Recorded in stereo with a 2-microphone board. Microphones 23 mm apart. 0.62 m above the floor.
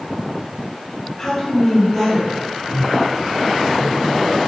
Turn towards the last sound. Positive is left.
turn(degrees=-20)  # may be behind; listen again after turning